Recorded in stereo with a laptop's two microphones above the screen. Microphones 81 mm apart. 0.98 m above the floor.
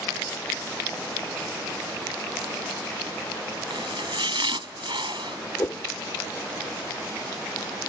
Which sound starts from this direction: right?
Chopping, at 3.7 s.